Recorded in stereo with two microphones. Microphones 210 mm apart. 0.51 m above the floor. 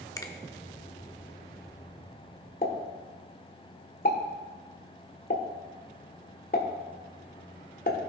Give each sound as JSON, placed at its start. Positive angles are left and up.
{"t": 0.2, "sound": "a finger snap", "side_deg": 15, "distance_m": 0.8}
{"t": 2.6, "sound": "a pop", "side_deg": 45, "distance_m": 1.4}